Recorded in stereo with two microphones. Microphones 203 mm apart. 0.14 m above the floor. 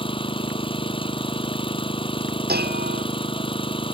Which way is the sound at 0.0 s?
25° left (ahead or behind).